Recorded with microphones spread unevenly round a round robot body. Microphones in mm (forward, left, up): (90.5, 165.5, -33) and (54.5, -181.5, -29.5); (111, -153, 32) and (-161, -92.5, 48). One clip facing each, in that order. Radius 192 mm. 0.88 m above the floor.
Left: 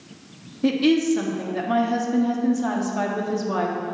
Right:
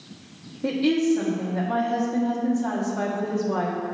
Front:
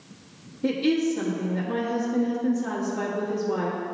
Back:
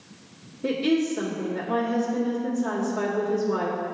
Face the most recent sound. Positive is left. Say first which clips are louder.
# left 3 dB, even
turn(degrees=45)